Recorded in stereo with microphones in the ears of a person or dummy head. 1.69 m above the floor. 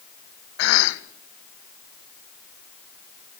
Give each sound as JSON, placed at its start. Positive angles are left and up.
{"t": 0.6, "sound": "a cough", "side_deg": 75, "distance_m": 1.4}